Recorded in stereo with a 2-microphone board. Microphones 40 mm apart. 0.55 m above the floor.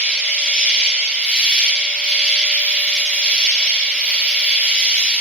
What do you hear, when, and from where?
0.0 s an insect: 10° right (ahead or behind), 1.9 m